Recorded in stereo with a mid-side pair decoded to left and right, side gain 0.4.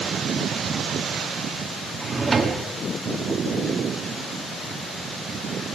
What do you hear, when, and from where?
2.0 s a drawer: 35° right, 2 m